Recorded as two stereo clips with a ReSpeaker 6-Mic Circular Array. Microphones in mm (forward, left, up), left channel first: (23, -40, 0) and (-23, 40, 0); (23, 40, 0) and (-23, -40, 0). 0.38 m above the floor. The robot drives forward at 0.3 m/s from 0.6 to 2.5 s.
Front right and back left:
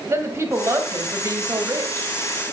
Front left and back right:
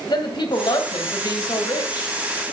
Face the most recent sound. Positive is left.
turn(degrees=85)